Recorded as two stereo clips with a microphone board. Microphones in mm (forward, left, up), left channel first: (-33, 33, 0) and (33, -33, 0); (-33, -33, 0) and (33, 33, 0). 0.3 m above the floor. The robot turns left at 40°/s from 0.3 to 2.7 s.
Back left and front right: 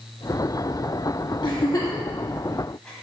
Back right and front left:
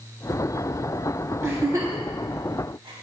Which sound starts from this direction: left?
A giggle, at 1.4 s.